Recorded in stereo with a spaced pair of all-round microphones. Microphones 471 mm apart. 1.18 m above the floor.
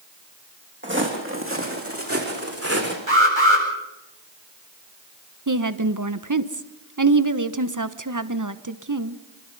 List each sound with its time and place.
0.8 s footsteps: 25° right (ahead or behind), 4 m; by 3.0 s 30° right (ahead or behind), 5 m
3.1 s an alarm: 75° right (ahead or behind), 7.5 m
5.5 s a woman speaking: 40° right (ahead or behind), 1.1 m